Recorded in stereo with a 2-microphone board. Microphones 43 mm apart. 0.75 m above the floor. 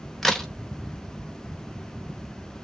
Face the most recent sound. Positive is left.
turn(degrees=5)  # may be behind; listen again after turning